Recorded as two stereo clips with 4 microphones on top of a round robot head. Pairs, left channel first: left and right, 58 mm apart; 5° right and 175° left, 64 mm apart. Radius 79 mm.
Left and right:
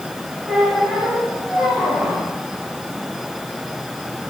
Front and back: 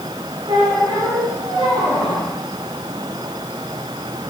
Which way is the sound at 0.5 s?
170° right.